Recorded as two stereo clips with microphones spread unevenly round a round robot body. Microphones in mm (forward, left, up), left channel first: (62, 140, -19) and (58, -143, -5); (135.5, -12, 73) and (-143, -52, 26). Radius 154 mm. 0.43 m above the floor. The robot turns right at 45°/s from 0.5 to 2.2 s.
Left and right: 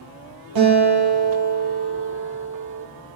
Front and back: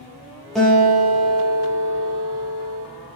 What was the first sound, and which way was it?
A guitar, 80° right.